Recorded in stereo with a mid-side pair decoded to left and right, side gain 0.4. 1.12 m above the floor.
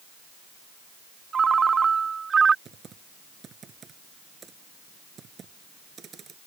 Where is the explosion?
No explosion in this recording.